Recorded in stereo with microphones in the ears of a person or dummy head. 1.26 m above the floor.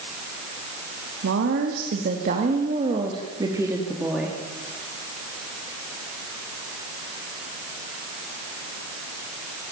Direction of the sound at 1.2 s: 75° right (ahead or behind).